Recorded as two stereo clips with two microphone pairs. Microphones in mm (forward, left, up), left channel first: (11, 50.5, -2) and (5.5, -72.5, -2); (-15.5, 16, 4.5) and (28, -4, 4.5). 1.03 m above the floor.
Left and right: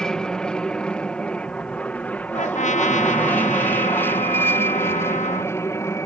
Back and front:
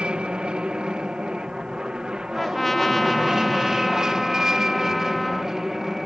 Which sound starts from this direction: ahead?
An aircraft, at 0.0 s.